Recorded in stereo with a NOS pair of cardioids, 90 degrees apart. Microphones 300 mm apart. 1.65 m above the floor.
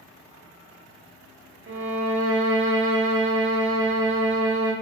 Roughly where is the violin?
Ahead right.